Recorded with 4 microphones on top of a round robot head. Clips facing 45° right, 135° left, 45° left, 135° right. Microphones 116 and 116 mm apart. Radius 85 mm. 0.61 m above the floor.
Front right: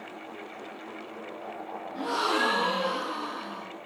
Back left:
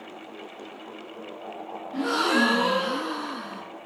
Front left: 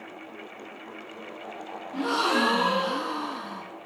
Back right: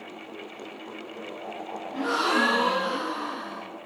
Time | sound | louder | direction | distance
1.9 | a gasp | back left 5 dB, even | 115° left | 1.6 m